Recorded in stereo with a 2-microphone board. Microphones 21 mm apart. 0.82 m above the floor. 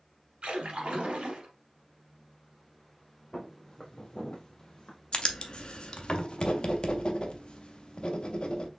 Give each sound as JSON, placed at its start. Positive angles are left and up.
{"t": 0.4, "sound": "a splash", "side_deg": -60, "distance_m": 1.5}
{"t": 3.3, "sound": "footsteps", "side_deg": 20, "distance_m": 1.9}
{"t": 5.1, "sound": "writing", "side_deg": 50, "distance_m": 0.7}